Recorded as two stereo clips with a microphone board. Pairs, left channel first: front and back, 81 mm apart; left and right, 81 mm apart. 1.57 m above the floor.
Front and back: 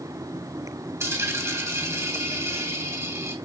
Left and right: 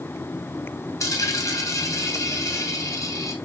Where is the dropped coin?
130° left, 2.5 m.